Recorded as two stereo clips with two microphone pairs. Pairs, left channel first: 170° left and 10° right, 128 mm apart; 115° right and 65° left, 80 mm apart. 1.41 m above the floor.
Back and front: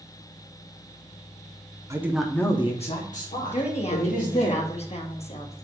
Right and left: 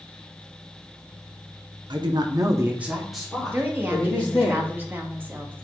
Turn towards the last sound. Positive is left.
turn(degrees=130)